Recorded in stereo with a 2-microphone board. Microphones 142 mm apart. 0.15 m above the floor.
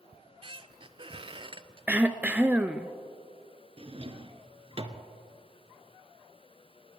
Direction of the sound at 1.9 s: 10° right (ahead or behind).